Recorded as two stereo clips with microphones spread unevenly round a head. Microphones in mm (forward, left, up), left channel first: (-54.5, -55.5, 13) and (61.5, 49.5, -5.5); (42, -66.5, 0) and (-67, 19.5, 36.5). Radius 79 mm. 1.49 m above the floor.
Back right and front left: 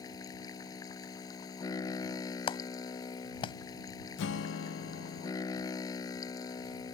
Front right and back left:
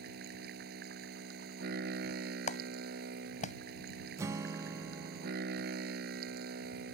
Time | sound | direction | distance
0.0 | a machine running | 155° left | ?
2.5 | a clap | 80° right | ?
4.2 | a guitar | 150° right | ?